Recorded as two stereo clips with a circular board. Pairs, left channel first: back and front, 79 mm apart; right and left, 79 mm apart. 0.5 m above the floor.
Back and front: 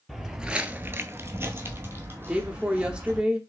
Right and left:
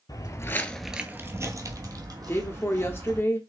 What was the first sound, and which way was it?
Footsteps, 90° right.